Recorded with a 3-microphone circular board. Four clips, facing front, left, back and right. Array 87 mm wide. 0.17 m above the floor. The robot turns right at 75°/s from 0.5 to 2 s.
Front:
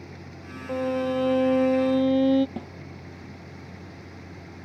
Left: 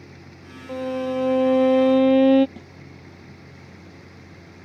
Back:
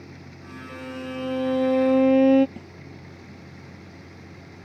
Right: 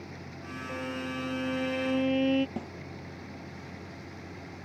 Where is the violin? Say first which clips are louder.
Left 11 dB, front 9 dB; 25° left; by 2.5 s 120° left.